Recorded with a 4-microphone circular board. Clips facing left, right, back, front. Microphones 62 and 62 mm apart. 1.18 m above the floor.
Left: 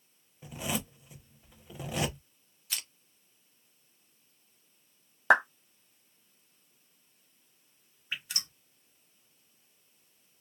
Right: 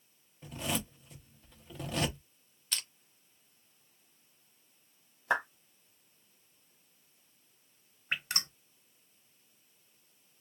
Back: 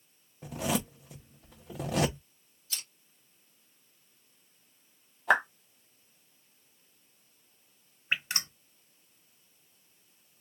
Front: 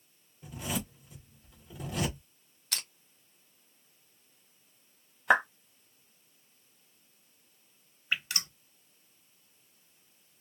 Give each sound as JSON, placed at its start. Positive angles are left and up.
{"t": 0.4, "sound": "a zipper", "azimuth_deg": 170, "distance_m": 0.8}
{"t": 2.7, "sound": "crushing", "azimuth_deg": 5, "distance_m": 0.8}
{"t": 5.3, "sound": "a clap", "azimuth_deg": 85, "distance_m": 0.8}
{"t": 8.1, "sound": "dripping", "azimuth_deg": -125, "distance_m": 0.8}